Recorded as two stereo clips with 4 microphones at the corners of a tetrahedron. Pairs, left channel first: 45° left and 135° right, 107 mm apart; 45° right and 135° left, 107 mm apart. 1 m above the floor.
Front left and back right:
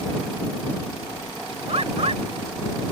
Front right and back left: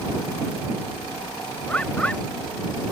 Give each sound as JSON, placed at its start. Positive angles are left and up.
{"t": 1.7, "sound": "a bird", "azimuth_deg": -120}